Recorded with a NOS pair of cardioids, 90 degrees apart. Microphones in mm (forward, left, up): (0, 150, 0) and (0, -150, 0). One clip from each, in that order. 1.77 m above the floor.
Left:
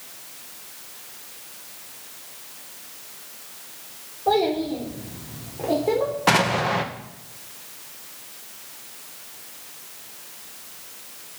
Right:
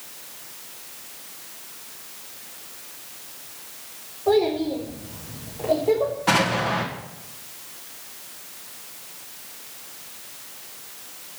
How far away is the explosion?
About 2 m.